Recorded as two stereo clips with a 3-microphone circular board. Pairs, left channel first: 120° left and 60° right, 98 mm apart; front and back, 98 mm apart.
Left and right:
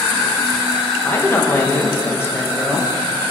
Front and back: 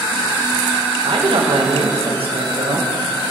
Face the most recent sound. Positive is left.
turn(degrees=-175)